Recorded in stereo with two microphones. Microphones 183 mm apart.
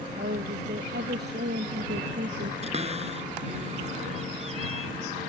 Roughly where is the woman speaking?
Right.